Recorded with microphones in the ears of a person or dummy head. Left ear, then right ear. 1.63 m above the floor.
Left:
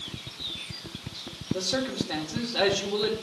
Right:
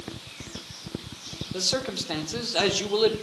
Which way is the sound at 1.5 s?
50° right (ahead or behind).